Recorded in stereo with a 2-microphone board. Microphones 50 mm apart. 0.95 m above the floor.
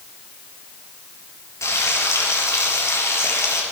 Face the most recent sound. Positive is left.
turn(degrees=80)